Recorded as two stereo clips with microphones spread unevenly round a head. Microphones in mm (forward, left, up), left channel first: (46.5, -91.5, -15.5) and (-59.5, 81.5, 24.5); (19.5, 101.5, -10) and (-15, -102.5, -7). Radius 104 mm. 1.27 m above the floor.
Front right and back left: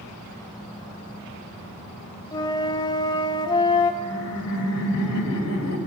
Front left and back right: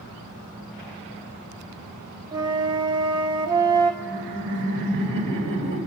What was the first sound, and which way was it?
A flute, 125° right.